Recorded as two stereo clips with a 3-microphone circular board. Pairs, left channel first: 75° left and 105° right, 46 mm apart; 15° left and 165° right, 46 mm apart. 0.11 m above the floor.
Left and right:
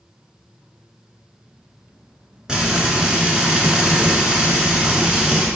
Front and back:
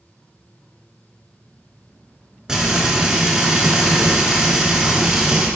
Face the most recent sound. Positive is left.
turn(degrees=-125)